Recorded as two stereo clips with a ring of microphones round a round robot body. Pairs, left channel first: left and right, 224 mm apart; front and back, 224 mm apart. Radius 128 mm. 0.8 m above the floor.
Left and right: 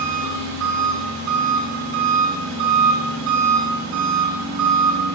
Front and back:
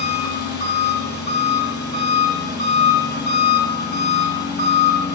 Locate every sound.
0.0 s an engine running: 45° right, 6.5 m